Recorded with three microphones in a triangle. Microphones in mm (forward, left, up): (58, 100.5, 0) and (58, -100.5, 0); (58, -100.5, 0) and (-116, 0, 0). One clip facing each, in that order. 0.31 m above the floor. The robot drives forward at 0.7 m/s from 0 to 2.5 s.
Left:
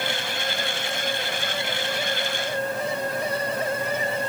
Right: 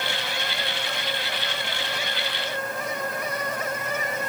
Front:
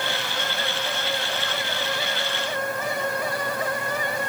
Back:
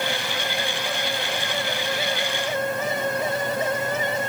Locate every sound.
Only background noise.